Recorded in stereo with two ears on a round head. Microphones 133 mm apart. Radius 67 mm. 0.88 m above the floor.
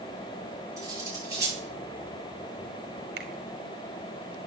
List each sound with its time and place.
0.8 s cutlery clinking: 25° right (ahead or behind), 9.5 m
3.2 s a finger snap: 80° right, 2 m